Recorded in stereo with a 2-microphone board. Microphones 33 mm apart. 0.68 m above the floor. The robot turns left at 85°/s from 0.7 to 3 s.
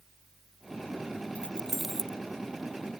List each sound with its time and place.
1.4 s keys jangling: 40° left (ahead or behind); by 2.2 s 35° right (ahead or behind)